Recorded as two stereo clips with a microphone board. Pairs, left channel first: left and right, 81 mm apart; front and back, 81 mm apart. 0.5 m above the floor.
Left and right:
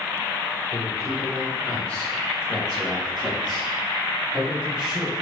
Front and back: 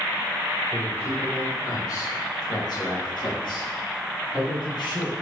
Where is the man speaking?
70° left, 1.3 m; by 5.1 s 15° right, 4.5 m.